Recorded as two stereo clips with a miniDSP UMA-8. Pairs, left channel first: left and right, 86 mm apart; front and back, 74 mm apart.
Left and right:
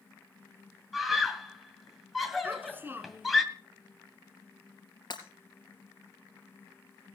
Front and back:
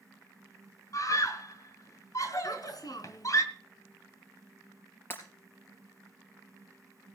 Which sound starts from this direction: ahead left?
Breaking glass, at 5.1 s.